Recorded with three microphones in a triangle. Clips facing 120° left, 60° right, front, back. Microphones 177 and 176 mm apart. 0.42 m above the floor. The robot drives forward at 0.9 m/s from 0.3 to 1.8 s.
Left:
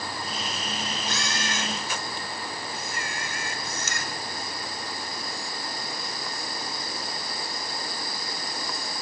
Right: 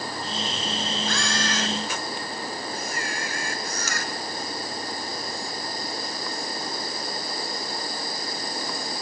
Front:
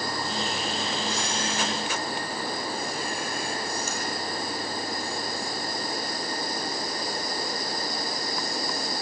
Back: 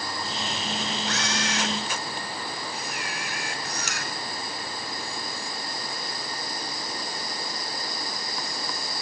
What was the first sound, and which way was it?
A camera shutter, 175° right.